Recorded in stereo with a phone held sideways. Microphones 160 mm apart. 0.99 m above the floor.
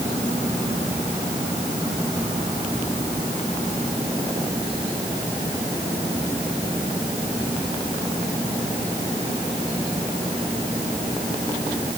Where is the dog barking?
No dog barking in this recording.